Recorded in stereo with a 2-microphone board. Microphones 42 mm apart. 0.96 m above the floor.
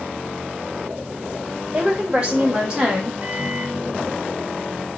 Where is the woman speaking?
20° right (ahead or behind), 2.0 m; by 3.1 s 10° right (ahead or behind), 1.3 m.